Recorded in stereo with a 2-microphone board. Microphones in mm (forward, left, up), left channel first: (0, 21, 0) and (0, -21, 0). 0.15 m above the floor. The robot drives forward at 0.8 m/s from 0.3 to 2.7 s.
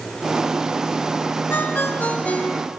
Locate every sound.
1.5 s a ringtone: 55° left (ahead or behind), 0.7 m; by 2.7 s 25° left (ahead or behind), 1.2 m